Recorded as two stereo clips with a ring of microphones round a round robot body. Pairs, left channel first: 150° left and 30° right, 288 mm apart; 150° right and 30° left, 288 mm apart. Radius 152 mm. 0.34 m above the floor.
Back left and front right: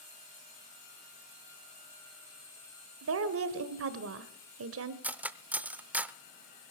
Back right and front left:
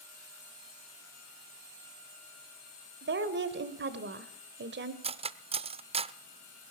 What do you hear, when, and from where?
3.0 s a woman speaking: 10° right, 1.4 m
5.0 s cutlery clinking: 45° left, 0.6 m